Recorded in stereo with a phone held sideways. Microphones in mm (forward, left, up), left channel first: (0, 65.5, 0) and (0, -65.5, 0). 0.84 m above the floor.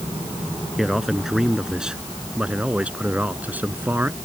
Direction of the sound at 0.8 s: Centre (ahead or behind).